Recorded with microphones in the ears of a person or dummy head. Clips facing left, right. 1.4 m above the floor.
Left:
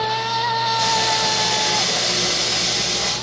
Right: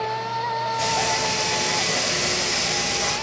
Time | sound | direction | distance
0.8 | frying | 5° left (ahead or behind) | 7 m